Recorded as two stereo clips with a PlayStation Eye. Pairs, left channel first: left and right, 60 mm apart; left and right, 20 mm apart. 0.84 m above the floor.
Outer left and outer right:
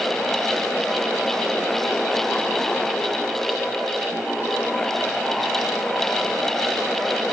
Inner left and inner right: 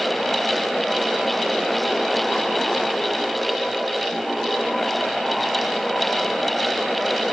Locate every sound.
Only background noise.